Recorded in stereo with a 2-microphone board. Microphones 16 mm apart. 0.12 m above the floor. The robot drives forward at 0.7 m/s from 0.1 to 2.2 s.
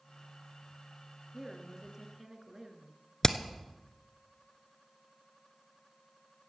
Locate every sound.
1.3 s a woman speaking: 25° right (ahead or behind), 2 m; by 3.0 s 30° right (ahead or behind), 1.9 m
3.2 s hammering: 30° left (ahead or behind), 0.8 m